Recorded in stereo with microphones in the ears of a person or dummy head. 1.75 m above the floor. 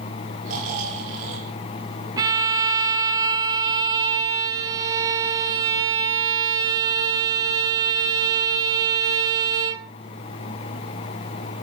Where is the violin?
20° right (ahead or behind), 0.8 m.